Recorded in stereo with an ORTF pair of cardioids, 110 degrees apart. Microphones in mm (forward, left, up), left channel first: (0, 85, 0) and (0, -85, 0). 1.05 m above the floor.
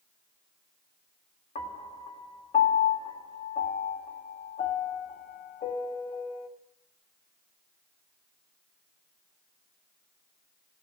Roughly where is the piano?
Ahead left.